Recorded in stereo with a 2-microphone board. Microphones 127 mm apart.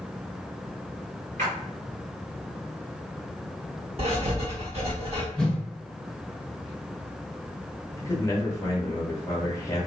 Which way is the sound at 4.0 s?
50° right (ahead or behind).